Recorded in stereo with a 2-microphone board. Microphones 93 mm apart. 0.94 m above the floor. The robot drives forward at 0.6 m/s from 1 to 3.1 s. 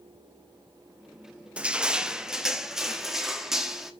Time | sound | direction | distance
1.6 | crushing | 10° right (ahead or behind) | 0.6 m